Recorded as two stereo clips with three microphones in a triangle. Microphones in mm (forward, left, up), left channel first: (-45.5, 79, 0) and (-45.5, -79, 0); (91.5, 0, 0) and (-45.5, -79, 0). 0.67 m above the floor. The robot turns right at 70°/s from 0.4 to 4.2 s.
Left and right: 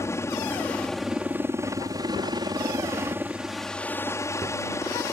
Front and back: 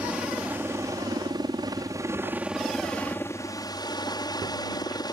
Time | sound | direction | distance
0.0 | a helicopter | 140° left | ?